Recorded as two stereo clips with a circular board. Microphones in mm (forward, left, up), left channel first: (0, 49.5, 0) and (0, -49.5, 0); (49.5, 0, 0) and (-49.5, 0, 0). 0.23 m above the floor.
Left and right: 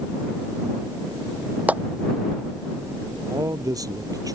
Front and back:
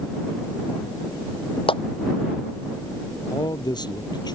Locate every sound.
1.7 s a clap: 15° right
3.3 s a man speaking: 40° right